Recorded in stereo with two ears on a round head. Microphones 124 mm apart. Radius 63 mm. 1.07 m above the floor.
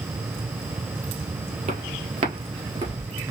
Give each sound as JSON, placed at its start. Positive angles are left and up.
{"t": 1.7, "sound": "footsteps", "side_deg": -55, "distance_m": 1.8}